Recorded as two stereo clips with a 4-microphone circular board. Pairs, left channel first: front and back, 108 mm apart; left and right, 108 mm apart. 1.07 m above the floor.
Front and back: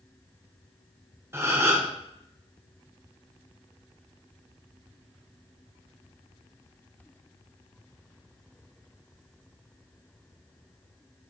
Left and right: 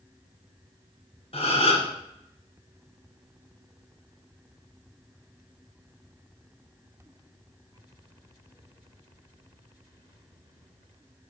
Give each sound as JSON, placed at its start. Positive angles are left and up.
{"t": 1.3, "sound": "a gasp", "azimuth_deg": 115, "distance_m": 1.7}